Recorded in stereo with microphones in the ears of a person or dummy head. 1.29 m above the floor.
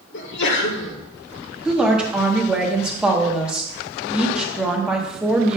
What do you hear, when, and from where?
0.1 s a sneeze: 65° left (ahead or behind), 1.2 m
1.6 s a woman speaking: 5° right (ahead or behind), 1.0 m